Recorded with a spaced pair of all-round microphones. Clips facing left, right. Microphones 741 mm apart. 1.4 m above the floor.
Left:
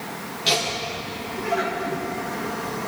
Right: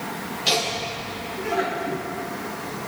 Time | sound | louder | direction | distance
0.5 | laughter | left 1 dB | 50° left (ahead or behind) | 4 m